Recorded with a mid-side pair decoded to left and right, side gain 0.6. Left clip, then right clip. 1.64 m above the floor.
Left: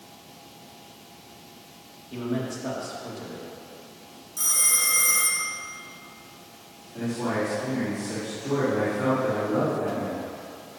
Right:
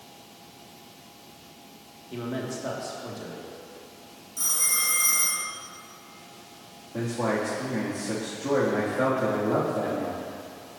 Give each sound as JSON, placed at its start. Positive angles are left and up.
{"t": 2.1, "sound": "a man speaking", "azimuth_deg": -10, "distance_m": 2.5}
{"t": 4.4, "sound": "a phone ringing", "azimuth_deg": 15, "distance_m": 2.5}
{"t": 6.9, "sound": "a man speaking", "azimuth_deg": -60, "distance_m": 2.5}